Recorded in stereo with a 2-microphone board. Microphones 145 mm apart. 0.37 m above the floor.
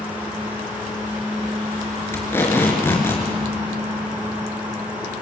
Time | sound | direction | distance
2.1 | tape being pulled | 15° left (ahead or behind) | 4.5 m